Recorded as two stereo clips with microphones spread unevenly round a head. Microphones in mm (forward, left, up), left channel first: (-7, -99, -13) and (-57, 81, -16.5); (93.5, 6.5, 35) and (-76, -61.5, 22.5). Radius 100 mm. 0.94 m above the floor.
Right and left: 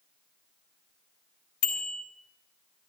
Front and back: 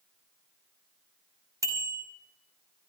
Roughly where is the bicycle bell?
Right.